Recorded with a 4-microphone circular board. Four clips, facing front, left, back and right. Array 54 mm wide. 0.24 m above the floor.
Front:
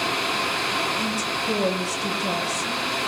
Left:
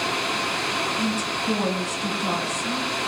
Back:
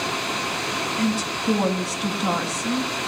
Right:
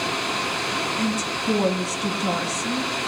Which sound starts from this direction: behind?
A woman speaking, at 1.0 s.